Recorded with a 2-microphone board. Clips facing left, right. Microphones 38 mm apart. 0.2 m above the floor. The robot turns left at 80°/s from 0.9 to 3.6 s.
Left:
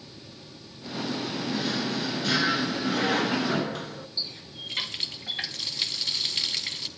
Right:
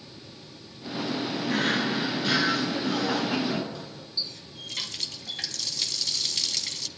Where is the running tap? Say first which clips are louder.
Right 2 dB; 25° left (ahead or behind), 1.1 m.